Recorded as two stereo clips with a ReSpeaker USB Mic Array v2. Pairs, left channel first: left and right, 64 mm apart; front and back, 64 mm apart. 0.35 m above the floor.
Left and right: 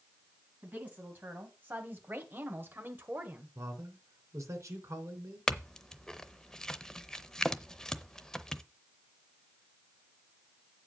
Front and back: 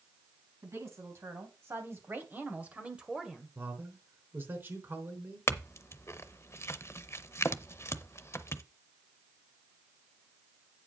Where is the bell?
I don't hear a bell.